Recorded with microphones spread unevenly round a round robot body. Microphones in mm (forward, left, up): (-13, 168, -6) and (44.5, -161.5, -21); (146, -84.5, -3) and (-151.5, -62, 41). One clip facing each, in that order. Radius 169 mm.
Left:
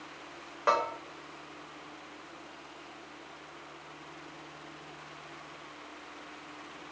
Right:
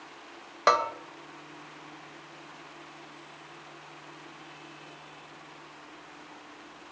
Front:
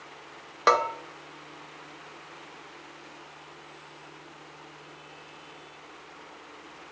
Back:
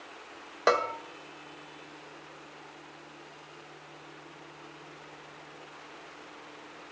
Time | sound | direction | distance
0.7 | a bell | 80° right | 1.0 m